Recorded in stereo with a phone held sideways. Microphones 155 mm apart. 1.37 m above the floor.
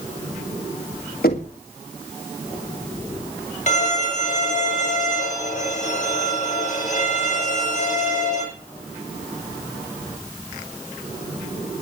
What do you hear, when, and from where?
1.2 s knocking: 80° left, 2 m
3.7 s a violin: 50° left (ahead or behind), 9 m